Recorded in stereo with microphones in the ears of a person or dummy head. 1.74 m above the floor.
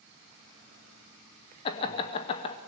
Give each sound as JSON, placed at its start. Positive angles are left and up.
{"t": 1.6, "sound": "laughter", "side_deg": 25, "distance_m": 0.7}